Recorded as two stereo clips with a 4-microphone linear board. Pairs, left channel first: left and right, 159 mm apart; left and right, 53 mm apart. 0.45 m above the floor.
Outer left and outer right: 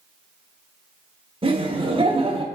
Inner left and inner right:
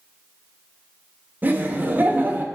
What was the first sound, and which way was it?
Laughter, 35° right (ahead or behind).